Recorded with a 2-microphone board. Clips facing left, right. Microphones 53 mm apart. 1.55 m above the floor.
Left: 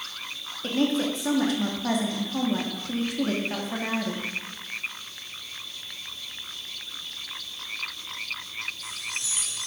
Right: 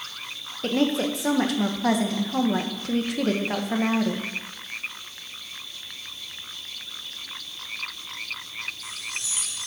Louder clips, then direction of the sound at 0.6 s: Right 2 dB; 80° right.